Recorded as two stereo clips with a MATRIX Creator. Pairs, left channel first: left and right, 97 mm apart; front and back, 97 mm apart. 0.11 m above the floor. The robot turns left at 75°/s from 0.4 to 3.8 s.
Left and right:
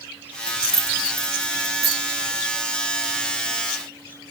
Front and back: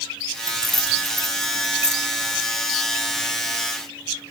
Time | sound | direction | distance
0.5 | keys jangling | 25° left | 1.3 m